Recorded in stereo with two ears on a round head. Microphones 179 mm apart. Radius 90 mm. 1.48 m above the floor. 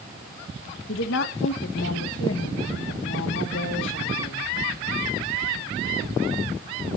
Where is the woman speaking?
65° left (ahead or behind), 1.9 m.